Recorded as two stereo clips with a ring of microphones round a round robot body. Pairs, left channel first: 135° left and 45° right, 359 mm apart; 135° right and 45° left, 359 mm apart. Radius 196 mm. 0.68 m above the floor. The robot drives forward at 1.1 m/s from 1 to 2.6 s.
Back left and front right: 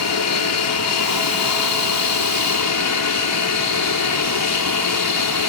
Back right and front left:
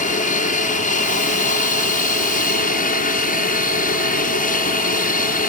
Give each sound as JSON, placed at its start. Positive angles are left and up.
{"t": 0.0, "sound": "an aircraft", "azimuth_deg": 160}